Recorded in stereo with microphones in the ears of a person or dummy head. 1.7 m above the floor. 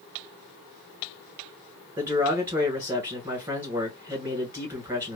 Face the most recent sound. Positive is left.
turn(degrees=-5)  # may be behind; listen again after turning